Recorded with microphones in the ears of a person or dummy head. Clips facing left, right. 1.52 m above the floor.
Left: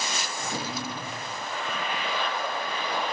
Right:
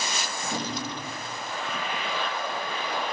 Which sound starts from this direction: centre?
A drawer, at 0.4 s.